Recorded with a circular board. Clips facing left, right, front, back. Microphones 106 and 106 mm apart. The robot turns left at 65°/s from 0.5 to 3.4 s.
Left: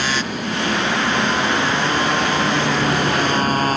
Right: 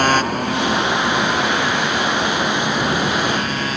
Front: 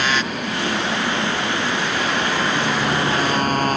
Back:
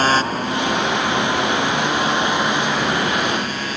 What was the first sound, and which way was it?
A motorcycle, 130° right.